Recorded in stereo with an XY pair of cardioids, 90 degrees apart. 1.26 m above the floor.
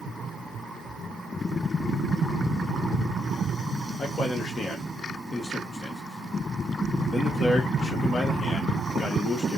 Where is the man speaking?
50° left, 1.2 m.